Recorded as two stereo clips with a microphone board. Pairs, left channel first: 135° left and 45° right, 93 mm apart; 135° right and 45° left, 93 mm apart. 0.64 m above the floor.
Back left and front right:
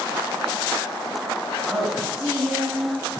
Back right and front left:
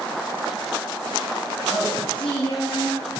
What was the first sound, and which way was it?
A woman speaking, 130° right.